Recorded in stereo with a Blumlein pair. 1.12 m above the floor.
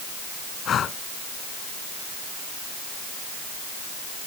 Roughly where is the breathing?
Ahead left.